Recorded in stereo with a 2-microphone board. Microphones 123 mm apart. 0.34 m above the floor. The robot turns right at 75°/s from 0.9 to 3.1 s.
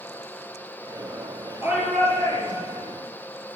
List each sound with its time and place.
1.6 s a shout: 25° right, 8.5 m; by 2.8 s 65° left, 8.5 m